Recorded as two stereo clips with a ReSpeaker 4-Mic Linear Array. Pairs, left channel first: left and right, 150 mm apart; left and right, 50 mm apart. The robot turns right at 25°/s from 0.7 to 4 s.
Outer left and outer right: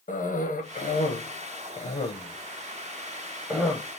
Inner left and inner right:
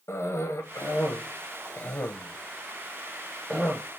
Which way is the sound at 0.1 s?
70° left (ahead or behind).